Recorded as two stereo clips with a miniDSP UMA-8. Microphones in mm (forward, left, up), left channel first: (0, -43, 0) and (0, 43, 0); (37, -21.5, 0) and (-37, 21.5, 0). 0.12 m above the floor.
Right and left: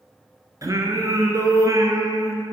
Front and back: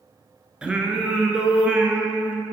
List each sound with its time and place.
0.6 s singing: 75° left, 0.8 m